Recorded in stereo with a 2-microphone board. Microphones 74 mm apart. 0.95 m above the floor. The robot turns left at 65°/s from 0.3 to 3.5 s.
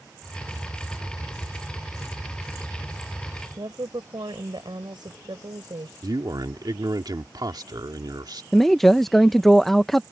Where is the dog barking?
I don't hear a dog barking.